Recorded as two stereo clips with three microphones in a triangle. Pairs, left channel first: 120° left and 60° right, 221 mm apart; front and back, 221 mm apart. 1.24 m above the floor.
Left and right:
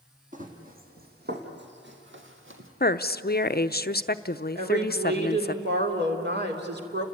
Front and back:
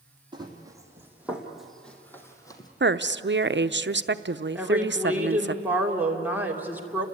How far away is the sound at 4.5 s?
About 3 m.